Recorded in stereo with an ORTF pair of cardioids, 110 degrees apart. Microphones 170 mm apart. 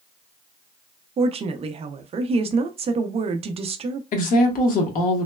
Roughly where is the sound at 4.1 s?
Ahead left.